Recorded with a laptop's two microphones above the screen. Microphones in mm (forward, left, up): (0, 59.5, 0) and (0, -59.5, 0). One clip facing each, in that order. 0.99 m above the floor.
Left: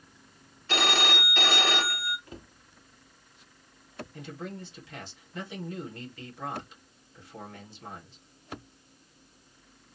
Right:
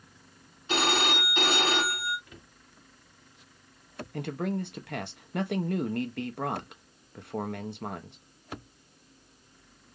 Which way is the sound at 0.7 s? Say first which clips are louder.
Right 1 dB; 20° right (ahead or behind).